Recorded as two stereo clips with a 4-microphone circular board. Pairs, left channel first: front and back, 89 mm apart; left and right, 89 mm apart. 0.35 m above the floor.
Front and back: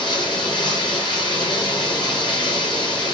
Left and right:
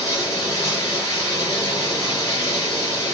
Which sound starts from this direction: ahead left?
Running water, at 0.0 s.